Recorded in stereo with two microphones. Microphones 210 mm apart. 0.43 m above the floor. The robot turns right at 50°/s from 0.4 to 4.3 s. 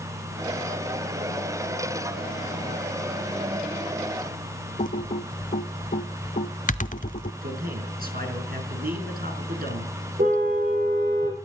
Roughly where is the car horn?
Right.